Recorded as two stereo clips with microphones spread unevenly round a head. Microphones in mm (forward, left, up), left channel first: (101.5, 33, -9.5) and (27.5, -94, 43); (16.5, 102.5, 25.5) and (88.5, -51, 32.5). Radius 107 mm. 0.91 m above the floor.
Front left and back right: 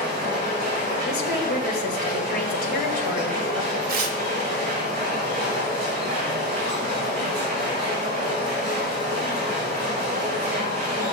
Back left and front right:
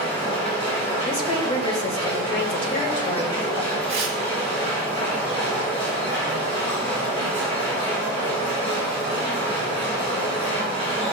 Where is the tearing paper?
125° right, 1.0 m.